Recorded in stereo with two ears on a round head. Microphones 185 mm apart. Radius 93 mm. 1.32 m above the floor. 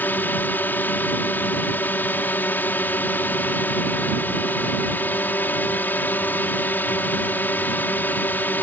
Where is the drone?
10° left (ahead or behind).